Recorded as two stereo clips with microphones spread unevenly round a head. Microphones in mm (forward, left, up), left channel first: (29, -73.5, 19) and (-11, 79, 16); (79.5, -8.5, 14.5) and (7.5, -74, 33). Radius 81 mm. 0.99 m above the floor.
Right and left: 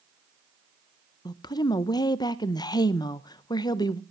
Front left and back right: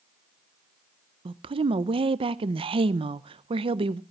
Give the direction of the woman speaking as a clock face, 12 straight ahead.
4 o'clock.